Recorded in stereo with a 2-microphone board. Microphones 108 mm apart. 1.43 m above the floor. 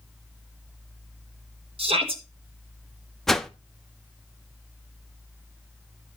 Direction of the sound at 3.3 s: 5° left (ahead or behind).